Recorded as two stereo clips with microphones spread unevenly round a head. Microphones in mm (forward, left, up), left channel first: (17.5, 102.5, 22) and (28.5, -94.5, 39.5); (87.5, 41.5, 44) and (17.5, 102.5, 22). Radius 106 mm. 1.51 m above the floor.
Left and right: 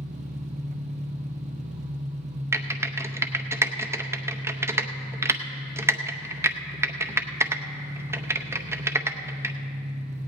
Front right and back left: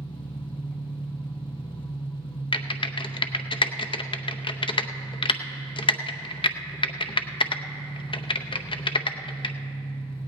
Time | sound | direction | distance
0.0 | an engine running | 35° right | 0.8 m
2.5 | typing on a keyboard | 10° right | 0.7 m